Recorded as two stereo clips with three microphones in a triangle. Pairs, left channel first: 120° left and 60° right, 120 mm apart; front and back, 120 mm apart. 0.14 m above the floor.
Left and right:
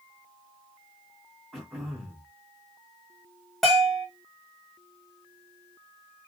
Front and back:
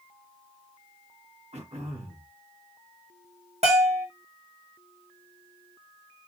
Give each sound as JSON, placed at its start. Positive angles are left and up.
{"t": 1.5, "sound": "throat clearing", "azimuth_deg": -145, "distance_m": 3.5}
{"t": 3.6, "sound": "a bell", "azimuth_deg": -150, "distance_m": 3.5}